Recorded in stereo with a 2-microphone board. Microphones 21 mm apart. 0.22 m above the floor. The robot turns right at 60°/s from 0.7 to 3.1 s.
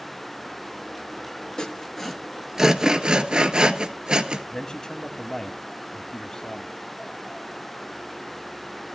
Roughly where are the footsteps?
No footsteps in this recording.